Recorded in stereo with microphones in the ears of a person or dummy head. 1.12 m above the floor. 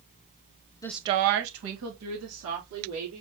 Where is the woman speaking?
20° left (ahead or behind), 0.5 m; by 3.2 s 85° right, 3.5 m.